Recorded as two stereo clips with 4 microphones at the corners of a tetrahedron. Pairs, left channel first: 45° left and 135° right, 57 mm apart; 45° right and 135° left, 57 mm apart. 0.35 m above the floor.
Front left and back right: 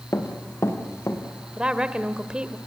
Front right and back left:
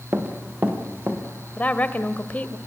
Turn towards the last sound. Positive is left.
turn(degrees=-75)